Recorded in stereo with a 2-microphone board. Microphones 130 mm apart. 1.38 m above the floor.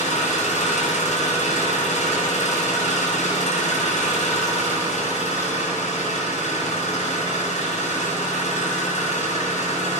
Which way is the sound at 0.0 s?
75° left (ahead or behind).